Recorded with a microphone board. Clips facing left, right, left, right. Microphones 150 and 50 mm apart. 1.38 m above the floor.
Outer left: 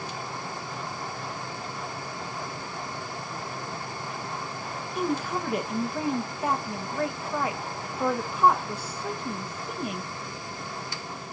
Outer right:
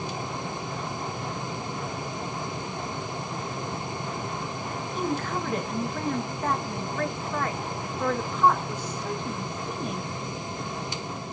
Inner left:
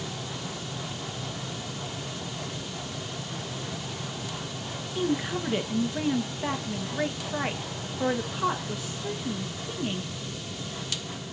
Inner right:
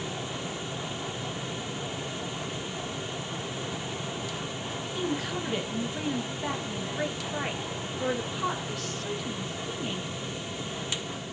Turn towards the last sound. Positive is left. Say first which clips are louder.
# outer left 1 dB, inner left 4 dB
turn(degrees=10)  # may be behind; listen again after turning